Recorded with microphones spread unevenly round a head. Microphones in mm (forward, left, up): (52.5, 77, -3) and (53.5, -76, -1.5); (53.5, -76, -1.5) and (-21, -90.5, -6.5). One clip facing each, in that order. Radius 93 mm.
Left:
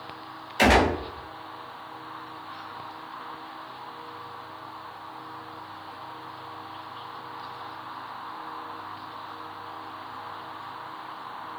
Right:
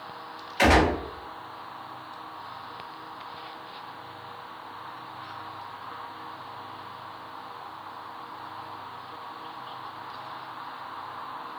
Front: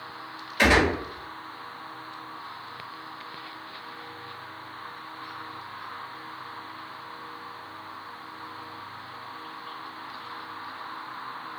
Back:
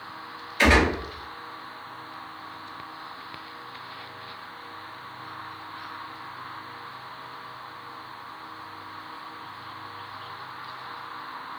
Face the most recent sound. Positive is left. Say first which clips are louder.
# even, back 1 dB
turn(degrees=45)